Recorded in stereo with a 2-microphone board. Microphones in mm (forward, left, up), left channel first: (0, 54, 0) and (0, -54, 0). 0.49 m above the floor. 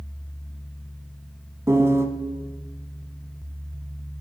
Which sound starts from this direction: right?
A piano, at 1.7 s.